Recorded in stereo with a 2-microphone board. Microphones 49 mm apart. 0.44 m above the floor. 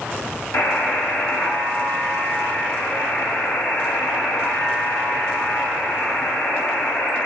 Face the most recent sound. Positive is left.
turn(degrees=70)  # may be behind; listen again after turning